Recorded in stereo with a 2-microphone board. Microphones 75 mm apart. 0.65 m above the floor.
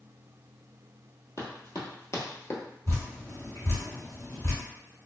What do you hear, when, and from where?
1.4 s running footsteps: 45° left (ahead or behind), 1.1 m; by 2.6 s 40° left (ahead or behind), 0.8 m
2.9 s dripping: 45° left (ahead or behind), 1.6 m